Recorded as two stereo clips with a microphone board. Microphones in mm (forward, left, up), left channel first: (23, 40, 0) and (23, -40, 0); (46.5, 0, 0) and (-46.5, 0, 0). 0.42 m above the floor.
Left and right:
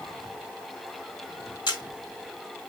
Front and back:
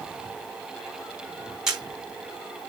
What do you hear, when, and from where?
1.7 s a camera shutter: 95° left, 4 m